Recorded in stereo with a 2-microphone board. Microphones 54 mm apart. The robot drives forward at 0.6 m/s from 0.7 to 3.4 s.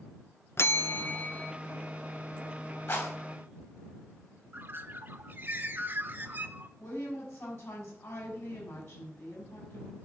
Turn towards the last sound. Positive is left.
turn(degrees=55)  # may be behind; listen again after turning